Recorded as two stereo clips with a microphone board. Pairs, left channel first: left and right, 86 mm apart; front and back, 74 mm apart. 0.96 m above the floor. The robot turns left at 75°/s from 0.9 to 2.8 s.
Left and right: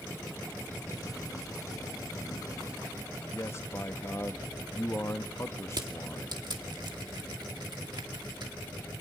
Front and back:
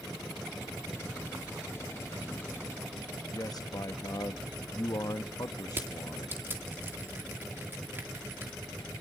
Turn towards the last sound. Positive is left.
turn(degrees=-120)